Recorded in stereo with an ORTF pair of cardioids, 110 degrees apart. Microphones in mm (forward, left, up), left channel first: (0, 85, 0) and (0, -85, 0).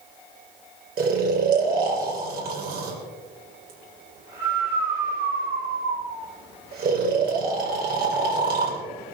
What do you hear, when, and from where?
1.0 s snoring: 60° right, 3.5 m